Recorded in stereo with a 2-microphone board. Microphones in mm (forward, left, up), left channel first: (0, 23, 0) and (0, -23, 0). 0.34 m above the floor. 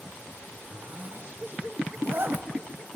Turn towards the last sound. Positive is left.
turn(degrees=-55)  # may be behind; listen again after turning